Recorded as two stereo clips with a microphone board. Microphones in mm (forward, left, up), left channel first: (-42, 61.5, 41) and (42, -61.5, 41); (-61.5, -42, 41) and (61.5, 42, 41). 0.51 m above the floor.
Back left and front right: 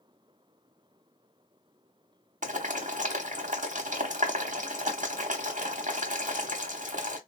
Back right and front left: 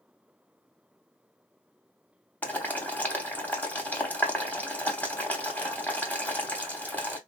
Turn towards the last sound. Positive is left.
turn(degrees=-70)